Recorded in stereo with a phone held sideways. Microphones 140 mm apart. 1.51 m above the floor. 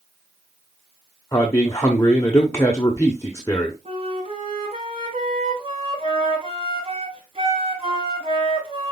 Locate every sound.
1.3 s a man speaking: 20° left (ahead or behind), 1.0 m
3.9 s a flute: 45° right (ahead or behind), 4.5 m